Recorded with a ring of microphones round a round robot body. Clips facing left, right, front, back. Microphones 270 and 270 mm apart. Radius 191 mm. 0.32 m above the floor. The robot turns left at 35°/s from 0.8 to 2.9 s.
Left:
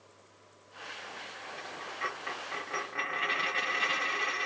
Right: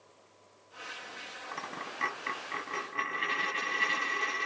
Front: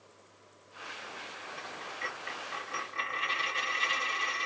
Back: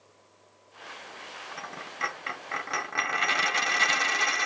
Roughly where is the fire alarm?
No fire alarm in this recording.